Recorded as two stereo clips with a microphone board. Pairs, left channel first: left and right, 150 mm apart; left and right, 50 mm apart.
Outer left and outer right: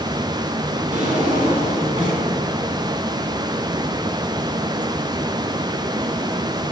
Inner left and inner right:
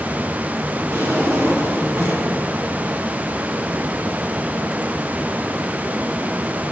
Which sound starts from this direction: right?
A drawer, at 0.9 s.